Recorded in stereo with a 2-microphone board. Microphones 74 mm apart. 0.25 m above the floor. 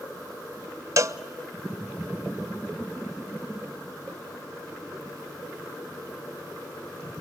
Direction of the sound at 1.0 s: 50° right (ahead or behind).